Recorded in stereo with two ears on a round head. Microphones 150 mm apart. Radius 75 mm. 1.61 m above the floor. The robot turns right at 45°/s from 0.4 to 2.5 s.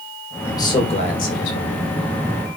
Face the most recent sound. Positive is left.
turn(degrees=110)